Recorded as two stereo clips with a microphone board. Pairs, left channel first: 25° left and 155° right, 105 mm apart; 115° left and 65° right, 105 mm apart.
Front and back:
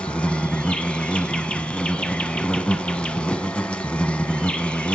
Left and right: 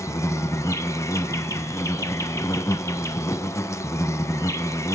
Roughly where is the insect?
Left.